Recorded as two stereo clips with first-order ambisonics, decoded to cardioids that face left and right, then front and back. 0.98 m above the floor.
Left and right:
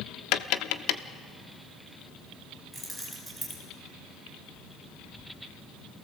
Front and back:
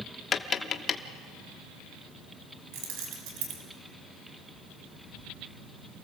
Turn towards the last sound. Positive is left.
turn(degrees=180)